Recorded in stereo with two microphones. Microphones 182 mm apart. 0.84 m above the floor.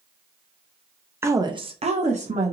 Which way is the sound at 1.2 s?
15° right (ahead or behind).